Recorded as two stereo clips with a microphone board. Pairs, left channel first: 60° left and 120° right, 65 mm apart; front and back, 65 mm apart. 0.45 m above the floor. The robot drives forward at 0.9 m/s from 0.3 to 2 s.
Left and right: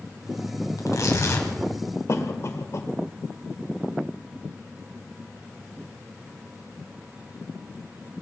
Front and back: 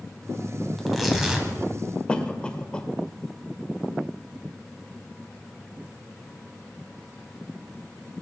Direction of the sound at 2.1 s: 70° left.